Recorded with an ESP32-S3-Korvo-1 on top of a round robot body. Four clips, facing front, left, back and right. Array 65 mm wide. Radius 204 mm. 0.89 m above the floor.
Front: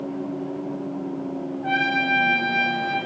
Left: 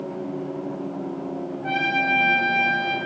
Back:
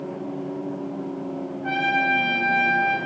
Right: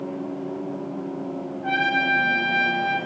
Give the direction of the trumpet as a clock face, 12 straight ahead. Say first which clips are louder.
Right 2 dB, even; 2 o'clock.